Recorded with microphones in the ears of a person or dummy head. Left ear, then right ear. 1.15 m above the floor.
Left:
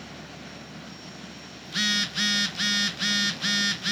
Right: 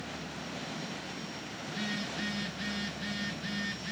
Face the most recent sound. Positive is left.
turn(degrees=45)  # may be behind; listen again after turning